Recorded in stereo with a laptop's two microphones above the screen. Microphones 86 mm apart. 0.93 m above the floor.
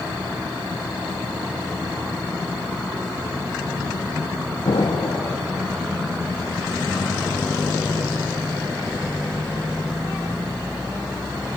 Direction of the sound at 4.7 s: 75° left (ahead or behind).